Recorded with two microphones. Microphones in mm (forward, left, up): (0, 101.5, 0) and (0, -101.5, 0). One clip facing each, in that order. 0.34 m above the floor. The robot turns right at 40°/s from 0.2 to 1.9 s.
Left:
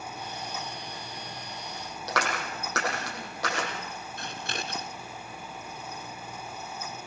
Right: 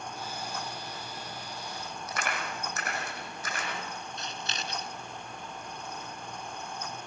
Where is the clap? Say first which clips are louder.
Left 5 dB; 80° left, 8.5 m.